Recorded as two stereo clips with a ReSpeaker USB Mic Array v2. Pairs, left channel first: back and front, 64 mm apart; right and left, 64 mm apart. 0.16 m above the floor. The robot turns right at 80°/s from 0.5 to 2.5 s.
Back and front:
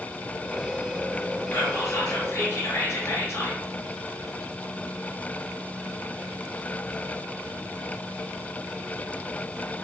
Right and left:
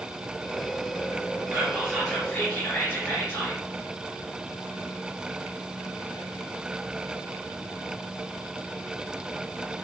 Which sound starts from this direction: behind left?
Whispering, at 1.5 s.